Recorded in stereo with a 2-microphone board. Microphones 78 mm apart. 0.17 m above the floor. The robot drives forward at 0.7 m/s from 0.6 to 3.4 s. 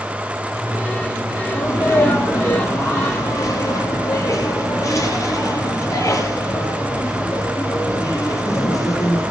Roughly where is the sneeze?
Left.